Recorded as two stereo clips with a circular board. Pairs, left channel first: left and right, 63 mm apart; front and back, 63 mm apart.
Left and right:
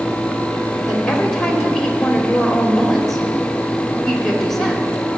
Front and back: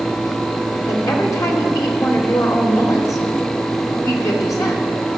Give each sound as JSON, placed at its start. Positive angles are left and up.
{"t": 0.9, "sound": "a woman speaking", "azimuth_deg": 5, "distance_m": 2.5}